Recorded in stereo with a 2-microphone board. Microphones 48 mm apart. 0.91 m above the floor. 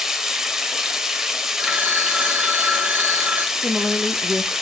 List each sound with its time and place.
0.0 s running water: 10° right (ahead or behind), 0.9 m
1.6 s a phone ringing: 35° right (ahead or behind), 1.4 m
3.5 s a woman speaking: 20° right (ahead or behind), 0.5 m